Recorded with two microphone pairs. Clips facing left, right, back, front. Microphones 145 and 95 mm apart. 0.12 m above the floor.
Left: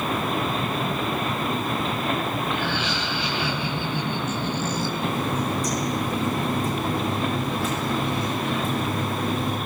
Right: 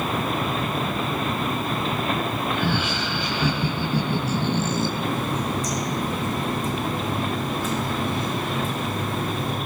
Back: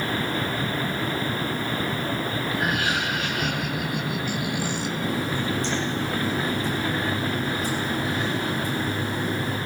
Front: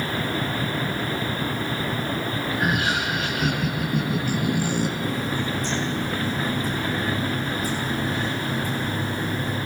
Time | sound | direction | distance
2.5 | laughter | 60° right | 3 m
5.0 | a running tap | 120° left | 6 m